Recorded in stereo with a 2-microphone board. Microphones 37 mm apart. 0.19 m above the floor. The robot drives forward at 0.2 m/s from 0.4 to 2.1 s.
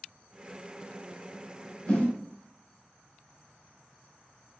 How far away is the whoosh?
About 1.5 m.